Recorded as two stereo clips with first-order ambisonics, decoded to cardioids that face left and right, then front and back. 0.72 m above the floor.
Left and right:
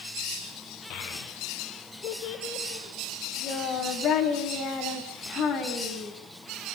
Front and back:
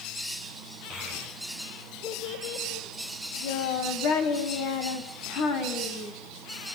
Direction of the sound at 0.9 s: 65° left.